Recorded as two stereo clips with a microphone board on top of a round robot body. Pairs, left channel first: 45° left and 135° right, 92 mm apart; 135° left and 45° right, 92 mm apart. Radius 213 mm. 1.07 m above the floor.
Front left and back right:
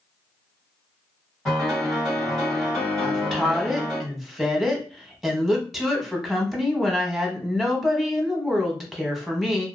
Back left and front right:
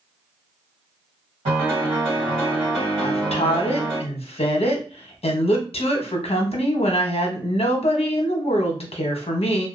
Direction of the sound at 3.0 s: 135° left.